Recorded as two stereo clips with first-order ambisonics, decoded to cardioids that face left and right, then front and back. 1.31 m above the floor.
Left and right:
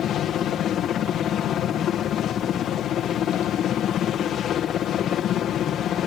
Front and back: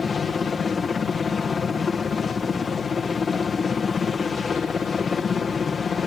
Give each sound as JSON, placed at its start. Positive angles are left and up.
{"t": 0.0, "sound": "a helicopter", "azimuth_deg": 60}